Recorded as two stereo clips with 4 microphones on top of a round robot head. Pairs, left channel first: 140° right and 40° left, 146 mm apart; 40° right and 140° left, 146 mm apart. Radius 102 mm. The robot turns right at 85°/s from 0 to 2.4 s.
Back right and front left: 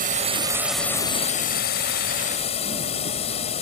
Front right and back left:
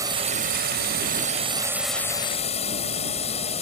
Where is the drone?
70° left; by 3.6 s 90° right.